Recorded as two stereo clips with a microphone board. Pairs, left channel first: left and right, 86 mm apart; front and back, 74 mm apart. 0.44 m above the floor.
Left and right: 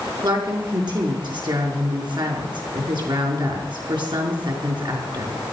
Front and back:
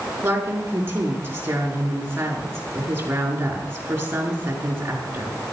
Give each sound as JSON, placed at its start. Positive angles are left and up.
{"t": 0.2, "sound": "a woman speaking", "azimuth_deg": -120, "distance_m": 5.5}